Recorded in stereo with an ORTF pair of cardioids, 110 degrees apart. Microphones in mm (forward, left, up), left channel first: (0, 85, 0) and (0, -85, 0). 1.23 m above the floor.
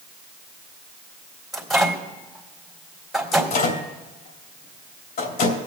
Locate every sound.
1.5 s a microwave: straight ahead, 2.5 m
3.3 s a microwave: 60° left, 3 m